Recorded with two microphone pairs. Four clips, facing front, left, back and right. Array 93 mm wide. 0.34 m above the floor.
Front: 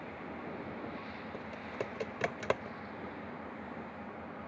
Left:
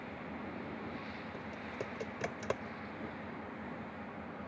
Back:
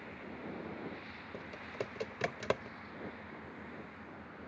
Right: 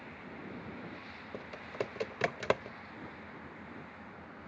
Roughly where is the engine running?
Ahead.